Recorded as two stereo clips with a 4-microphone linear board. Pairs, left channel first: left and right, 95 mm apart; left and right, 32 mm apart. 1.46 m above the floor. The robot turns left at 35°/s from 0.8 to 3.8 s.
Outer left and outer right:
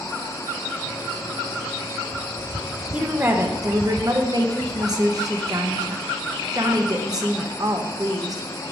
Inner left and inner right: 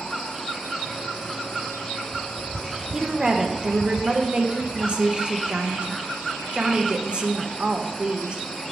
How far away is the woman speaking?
About 1.0 m.